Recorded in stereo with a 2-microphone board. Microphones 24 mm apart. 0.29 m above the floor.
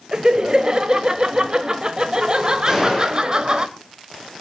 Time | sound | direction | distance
0.1 | laughter | 25° right (ahead or behind) | 1.0 m
2.7 | a gunshot | 25° right (ahead or behind) | 6 m